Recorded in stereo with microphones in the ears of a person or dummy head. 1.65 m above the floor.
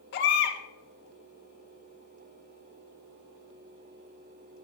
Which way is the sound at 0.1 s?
65° left (ahead or behind).